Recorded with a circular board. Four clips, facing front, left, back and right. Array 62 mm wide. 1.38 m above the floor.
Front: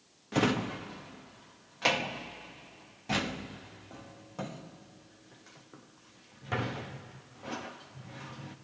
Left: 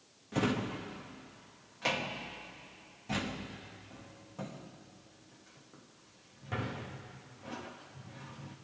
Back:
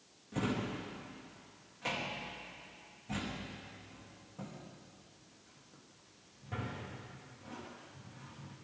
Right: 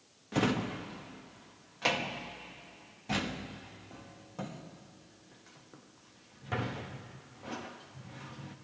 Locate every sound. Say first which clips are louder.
0.3 s a drawer: right 2 dB, front 7 dB; 15° right, 0.9 m